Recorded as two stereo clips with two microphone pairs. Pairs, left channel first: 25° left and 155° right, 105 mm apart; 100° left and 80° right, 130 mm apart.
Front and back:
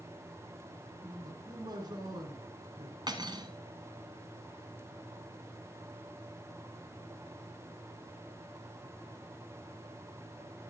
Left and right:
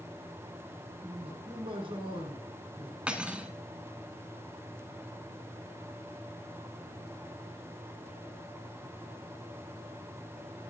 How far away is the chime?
No chime in this recording.